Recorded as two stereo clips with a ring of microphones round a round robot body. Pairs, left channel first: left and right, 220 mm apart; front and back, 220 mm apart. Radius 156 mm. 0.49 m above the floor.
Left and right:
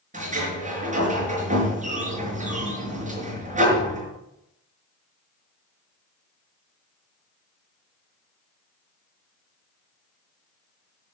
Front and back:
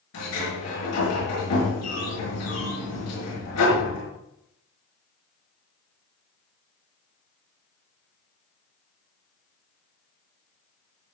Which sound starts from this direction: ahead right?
A sliding door, at 0.1 s.